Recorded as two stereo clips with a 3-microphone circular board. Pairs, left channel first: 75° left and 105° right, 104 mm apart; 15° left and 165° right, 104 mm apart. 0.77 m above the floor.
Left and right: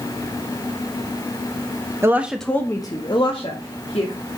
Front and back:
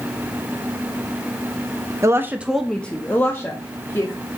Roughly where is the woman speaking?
Behind right.